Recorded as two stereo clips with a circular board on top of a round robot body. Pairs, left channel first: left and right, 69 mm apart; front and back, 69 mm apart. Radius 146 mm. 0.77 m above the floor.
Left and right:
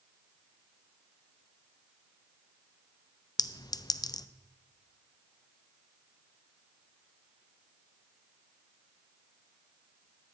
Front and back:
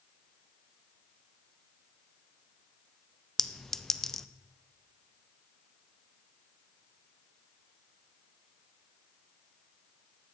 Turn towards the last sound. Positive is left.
turn(degrees=85)